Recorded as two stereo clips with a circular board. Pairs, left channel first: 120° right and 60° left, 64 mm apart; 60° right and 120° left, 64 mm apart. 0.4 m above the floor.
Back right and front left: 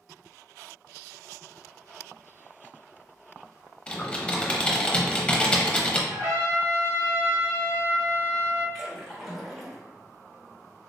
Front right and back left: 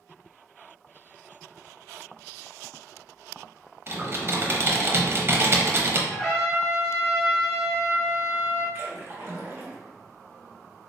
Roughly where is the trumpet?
Ahead left.